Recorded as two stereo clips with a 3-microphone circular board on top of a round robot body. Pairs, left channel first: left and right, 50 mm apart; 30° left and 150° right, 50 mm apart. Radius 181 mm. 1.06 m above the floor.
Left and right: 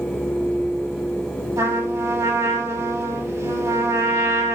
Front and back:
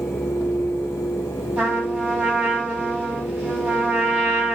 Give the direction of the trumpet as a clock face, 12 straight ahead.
3 o'clock.